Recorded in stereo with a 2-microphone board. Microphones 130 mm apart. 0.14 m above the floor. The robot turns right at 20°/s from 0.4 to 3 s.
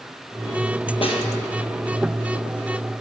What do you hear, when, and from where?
1.0 s a snare drum: 45° left (ahead or behind), 2 m; by 1.2 s 40° left (ahead or behind), 2 m